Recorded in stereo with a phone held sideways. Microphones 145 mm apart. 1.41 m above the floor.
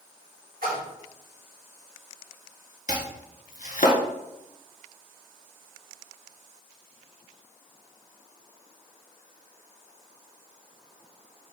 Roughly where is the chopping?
Left.